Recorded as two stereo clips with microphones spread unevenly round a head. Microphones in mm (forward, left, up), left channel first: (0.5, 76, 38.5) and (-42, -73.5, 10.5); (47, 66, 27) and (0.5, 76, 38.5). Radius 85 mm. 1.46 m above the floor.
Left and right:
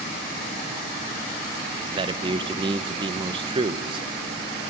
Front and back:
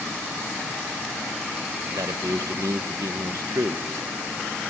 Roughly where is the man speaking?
Behind.